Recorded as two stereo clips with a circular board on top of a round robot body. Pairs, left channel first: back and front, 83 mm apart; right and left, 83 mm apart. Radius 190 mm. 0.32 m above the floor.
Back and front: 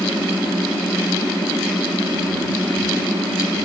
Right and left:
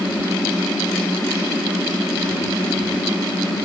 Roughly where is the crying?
No crying in this recording.